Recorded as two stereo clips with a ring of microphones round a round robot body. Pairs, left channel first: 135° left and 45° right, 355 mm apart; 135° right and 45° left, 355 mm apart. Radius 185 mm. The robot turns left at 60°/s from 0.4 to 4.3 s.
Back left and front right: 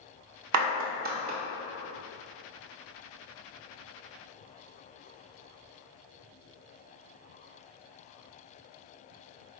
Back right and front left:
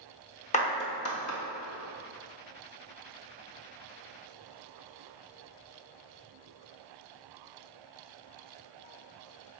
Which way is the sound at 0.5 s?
70° right.